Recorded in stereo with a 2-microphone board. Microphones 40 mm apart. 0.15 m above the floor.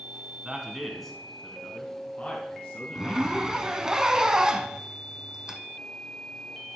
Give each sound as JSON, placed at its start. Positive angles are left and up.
{"t": 0.5, "sound": "a man speaking", "side_deg": -20, "distance_m": 1.1}
{"t": 3.0, "sound": "a zipper", "side_deg": -15, "distance_m": 0.7}